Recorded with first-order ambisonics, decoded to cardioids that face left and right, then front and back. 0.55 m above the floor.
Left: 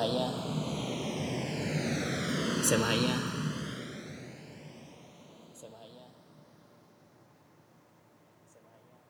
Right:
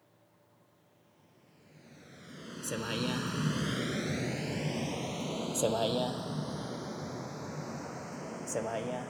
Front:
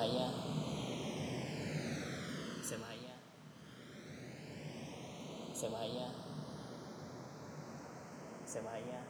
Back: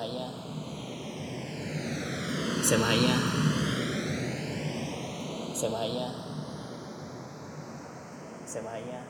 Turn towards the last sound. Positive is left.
turn(degrees=-115)